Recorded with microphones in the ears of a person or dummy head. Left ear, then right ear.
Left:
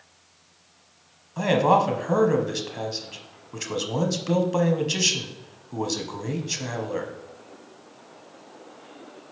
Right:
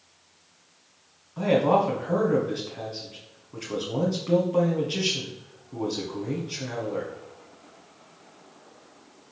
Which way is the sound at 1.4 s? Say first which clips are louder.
Left 2 dB; 80° left.